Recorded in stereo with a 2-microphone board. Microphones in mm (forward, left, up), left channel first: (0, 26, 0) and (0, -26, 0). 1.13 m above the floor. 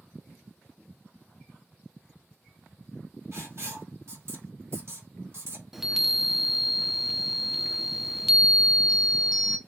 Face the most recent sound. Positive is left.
turn(degrees=-5)  # may be behind; listen again after turning